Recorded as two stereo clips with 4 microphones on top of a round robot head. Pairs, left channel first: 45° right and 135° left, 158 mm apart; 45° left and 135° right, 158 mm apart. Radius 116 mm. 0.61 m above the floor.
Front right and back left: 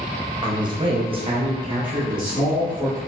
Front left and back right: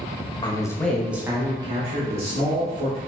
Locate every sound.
0.4 s a man speaking: 85° left, 0.7 m; by 3.0 s 165° right, 1.3 m